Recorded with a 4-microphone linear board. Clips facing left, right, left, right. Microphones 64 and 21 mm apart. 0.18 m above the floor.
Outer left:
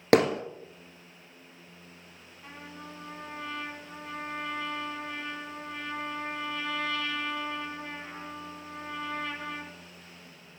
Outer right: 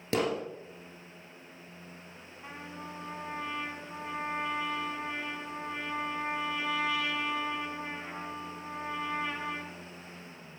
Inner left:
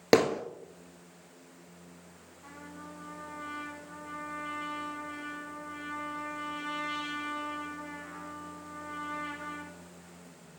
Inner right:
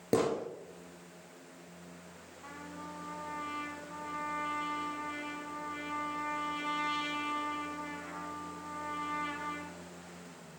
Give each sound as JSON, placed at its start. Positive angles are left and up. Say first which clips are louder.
{"t": 0.1, "sound": "hammering", "louder": "outer left 8 dB, inner left 6 dB", "side_deg": 65, "distance_m": 1.5}
{"t": 2.4, "sound": "a trumpet", "louder": "outer right 1 dB, inner right 1 dB", "side_deg": -15, "distance_m": 1.9}